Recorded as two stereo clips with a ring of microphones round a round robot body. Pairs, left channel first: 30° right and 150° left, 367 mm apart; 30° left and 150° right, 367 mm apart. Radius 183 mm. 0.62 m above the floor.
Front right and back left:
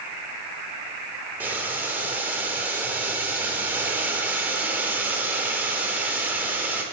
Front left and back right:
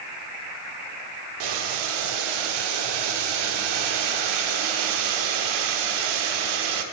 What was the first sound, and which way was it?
Boiling, 125° right.